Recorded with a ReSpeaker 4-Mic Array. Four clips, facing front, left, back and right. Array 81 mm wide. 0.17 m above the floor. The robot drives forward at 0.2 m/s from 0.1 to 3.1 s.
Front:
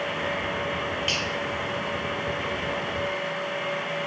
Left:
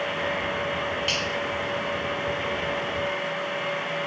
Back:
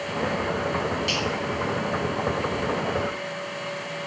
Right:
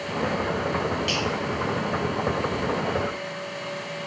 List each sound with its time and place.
1.1 s a finger snap: 5° left, 1.1 m